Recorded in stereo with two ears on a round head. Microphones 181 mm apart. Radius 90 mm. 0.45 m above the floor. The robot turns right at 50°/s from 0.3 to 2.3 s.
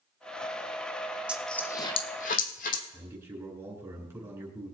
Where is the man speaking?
15° right (ahead or behind), 5 m.